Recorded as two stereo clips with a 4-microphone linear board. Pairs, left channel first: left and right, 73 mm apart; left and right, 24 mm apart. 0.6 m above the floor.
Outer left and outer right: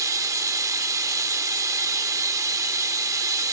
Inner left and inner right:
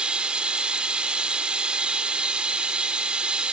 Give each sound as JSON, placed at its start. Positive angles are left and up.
{"t": 0.0, "sound": "running water", "side_deg": -45, "distance_m": 1.0}